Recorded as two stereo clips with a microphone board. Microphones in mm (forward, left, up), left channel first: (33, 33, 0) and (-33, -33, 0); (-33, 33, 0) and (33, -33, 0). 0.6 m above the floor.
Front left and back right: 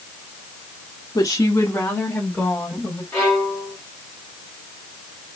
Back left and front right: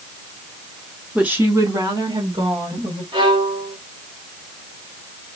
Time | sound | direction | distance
1.1 | a woman speaking | 35° left | 1.0 m
3.1 | a violin | 30° right | 2.5 m